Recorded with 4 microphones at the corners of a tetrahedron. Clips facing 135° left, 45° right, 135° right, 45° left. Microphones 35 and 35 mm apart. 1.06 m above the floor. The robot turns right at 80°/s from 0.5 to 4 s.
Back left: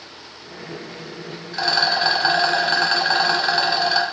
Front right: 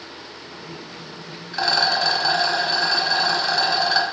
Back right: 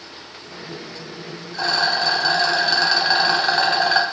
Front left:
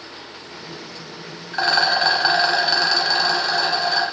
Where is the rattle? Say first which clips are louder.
Even, front left 2 dB; 35° left, 0.5 m; by 4.0 s 130° right, 0.5 m.